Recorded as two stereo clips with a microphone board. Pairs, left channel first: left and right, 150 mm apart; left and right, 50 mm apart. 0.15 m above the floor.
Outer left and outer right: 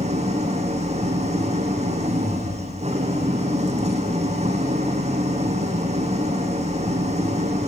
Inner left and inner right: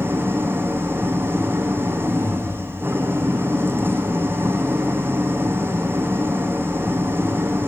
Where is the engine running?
45° right (ahead or behind), 5 m.